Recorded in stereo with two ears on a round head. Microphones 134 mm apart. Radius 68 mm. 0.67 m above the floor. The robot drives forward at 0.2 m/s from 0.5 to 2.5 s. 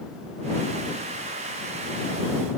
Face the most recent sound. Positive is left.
No sound to turn to.